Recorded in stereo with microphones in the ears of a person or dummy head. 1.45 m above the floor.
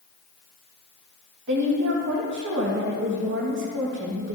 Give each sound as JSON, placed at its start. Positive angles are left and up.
{"t": 1.5, "sound": "a woman speaking", "side_deg": -60, "distance_m": 1.6}